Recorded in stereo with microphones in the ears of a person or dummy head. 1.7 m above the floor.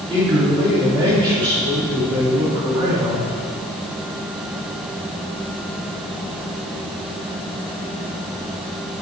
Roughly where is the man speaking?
Right.